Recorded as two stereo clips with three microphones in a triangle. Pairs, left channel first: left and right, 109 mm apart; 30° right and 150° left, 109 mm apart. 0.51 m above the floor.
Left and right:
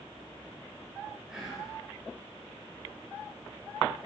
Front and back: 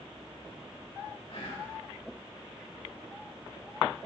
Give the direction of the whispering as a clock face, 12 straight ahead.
12 o'clock.